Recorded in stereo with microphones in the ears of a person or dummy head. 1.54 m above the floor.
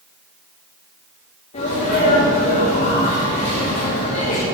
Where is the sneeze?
40° left (ahead or behind), 2.5 m.